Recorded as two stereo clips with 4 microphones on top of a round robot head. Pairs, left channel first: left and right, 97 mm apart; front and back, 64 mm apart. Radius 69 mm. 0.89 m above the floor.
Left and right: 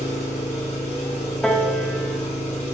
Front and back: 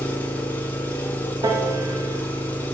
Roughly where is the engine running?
Ahead left.